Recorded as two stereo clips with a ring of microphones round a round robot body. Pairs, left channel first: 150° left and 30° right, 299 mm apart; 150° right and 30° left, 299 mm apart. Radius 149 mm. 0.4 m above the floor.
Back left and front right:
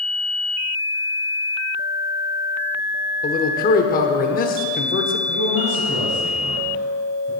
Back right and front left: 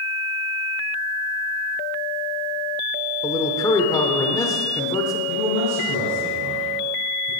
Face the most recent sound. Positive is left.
turn(degrees=40)